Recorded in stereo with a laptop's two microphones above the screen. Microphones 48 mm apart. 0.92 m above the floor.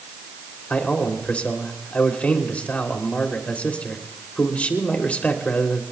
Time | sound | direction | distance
0.7 | a man speaking | 30° left (ahead or behind) | 3 m